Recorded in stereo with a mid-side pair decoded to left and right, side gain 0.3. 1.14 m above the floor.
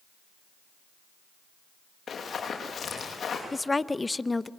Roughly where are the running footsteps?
Ahead left.